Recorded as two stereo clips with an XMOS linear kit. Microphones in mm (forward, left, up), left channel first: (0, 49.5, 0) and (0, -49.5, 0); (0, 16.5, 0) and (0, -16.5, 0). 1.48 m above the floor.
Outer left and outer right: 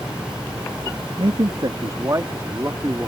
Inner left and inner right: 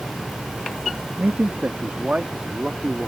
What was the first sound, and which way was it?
A man speaking, 60° right (ahead or behind).